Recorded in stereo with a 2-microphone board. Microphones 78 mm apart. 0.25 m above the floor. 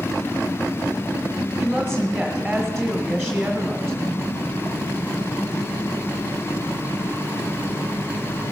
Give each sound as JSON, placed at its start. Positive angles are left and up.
{"t": 1.6, "sound": "a woman speaking", "side_deg": 0, "distance_m": 1.5}